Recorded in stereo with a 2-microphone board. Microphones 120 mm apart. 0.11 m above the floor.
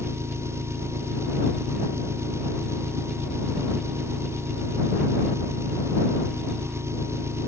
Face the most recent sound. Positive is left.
turn(degrees=-20)  # may be behind; listen again after turning